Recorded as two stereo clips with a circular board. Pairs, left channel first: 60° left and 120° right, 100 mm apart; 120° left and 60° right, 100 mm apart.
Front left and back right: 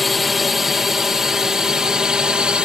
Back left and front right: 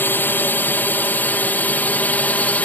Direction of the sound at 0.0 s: 150° left.